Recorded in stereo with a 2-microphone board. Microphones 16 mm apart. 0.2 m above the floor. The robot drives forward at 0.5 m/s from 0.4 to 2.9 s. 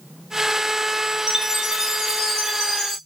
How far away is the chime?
About 1.7 m.